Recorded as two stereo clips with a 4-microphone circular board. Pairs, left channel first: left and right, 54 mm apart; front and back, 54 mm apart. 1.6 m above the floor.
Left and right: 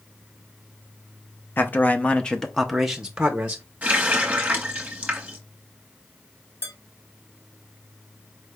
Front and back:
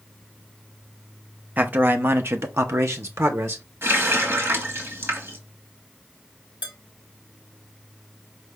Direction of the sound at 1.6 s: 130° left.